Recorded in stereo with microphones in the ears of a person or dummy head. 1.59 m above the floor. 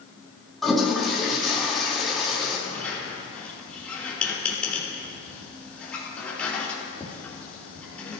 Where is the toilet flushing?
Centre (ahead or behind), 3.5 m.